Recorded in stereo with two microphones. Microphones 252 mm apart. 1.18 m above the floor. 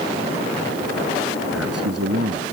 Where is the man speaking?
75° right (ahead or behind).